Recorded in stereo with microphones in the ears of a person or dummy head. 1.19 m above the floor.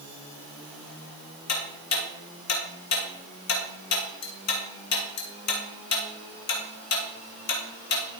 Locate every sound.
1.5 s ticking: 60° left (ahead or behind), 1.8 m